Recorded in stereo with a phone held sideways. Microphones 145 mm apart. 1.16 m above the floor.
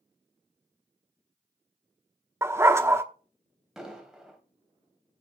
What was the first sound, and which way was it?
A dog barking, 20° right (ahead or behind).